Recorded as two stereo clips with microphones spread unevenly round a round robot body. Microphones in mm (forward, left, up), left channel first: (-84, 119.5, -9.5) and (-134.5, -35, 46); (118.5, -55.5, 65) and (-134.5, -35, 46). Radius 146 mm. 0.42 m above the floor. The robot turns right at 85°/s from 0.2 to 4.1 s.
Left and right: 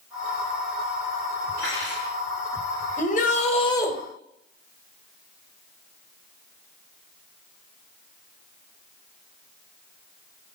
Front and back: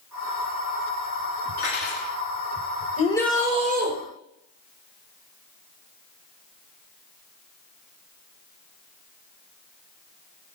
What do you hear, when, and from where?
1.6 s cutlery clinking: 20° left, 4 m; by 2.1 s 70° left, 4 m
3.0 s a shout: 60° left, 1.7 m; by 3.9 s 140° left, 1.7 m